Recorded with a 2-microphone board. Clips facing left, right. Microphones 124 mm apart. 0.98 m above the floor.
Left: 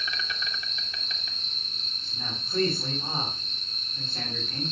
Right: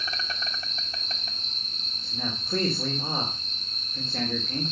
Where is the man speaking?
80° right, 2.5 m.